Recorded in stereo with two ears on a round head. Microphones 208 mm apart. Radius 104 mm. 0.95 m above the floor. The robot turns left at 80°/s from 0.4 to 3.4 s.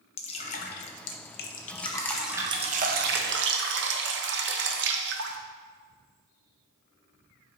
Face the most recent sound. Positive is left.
turn(degrees=-95)